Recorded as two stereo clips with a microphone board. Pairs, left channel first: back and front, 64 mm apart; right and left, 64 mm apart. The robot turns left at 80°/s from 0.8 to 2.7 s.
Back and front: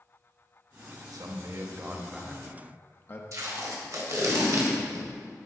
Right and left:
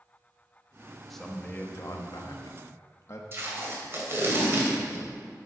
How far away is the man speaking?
About 0.9 m.